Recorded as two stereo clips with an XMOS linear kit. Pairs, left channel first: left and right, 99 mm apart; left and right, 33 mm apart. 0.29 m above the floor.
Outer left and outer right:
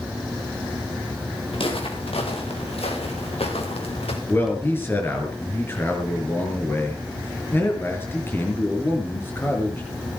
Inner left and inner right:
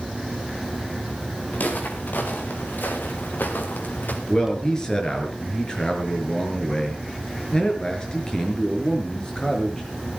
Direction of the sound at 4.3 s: 20° left (ahead or behind).